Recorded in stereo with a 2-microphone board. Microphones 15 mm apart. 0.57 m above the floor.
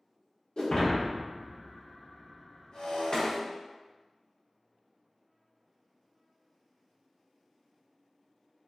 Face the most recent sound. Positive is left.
turn(degrees=50)  # may be behind; listen again after turning